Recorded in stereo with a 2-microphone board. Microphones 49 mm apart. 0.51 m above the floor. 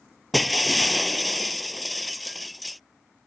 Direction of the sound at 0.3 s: Centre (ahead or behind).